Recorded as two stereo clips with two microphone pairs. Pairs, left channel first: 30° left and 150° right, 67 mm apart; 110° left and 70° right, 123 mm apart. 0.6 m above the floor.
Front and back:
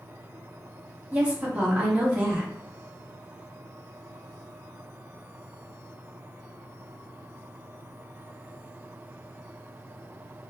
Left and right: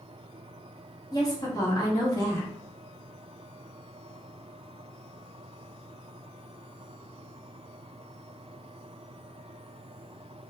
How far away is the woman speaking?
About 0.8 m.